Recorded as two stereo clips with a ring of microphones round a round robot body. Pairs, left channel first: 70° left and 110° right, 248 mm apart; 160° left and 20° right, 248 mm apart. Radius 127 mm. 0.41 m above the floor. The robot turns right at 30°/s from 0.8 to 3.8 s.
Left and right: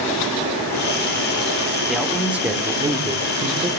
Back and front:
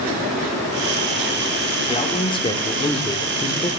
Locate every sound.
1.9 s a man speaking: 160° left, 1.3 m; by 3.8 s 140° right, 1.3 m